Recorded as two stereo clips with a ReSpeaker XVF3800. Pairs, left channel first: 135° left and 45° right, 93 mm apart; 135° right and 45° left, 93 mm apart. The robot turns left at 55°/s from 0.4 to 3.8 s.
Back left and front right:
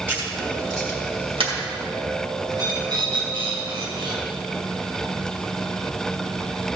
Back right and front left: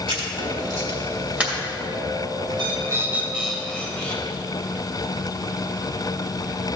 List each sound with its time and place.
0.1 s writing: 25° left, 2.5 m; by 1.5 s 40° right, 2.5 m
2.5 s a bird: 10° left, 1.9 m; by 4.2 s 60° right, 1.9 m